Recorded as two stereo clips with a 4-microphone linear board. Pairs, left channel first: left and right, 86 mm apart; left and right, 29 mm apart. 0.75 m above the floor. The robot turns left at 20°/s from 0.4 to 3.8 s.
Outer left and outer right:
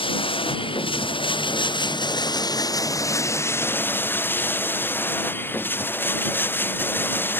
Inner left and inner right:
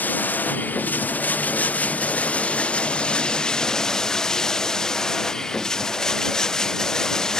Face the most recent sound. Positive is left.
turn(degrees=25)